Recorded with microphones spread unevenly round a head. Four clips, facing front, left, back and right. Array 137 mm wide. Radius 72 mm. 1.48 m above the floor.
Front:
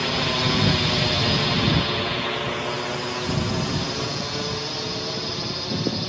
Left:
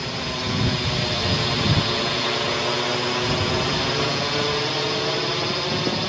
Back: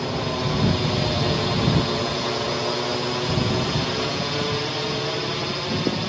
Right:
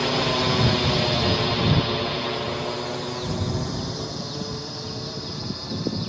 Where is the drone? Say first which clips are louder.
Right 6 dB, front 1 dB; 100° right; by 6.1 s 95° left.